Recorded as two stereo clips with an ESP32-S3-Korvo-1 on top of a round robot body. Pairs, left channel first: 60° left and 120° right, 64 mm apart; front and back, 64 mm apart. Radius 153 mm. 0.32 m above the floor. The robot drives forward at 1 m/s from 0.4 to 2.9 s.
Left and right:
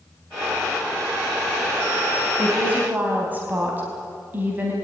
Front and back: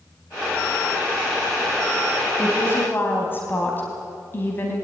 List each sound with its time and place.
2.4 s a woman speaking: 50° right, 4.5 m; by 4.7 s 60° right, 4 m